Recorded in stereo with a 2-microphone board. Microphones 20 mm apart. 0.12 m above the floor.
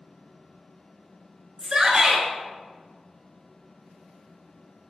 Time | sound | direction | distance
1.6 | a shout | 30° right (ahead or behind) | 1.4 m